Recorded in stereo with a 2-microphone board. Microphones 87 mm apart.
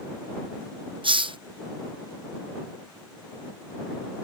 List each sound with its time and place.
1.0 s a hiss: 75° right (ahead or behind)